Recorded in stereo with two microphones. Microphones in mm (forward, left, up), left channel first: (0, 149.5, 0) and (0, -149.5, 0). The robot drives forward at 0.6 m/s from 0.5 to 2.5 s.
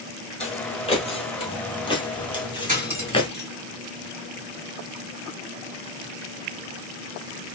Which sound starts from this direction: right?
Cutlery clinking, at 2.7 s.